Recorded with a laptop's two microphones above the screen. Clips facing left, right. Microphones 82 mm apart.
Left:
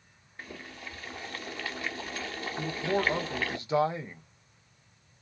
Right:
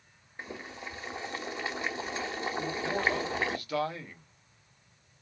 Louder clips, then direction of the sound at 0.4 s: Right 2 dB; 20° right (ahead or behind).